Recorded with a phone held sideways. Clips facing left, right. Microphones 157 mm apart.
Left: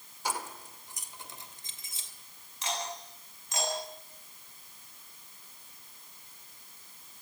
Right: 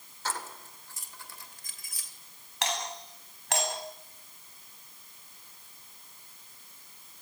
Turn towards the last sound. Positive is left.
turn(degrees=-80)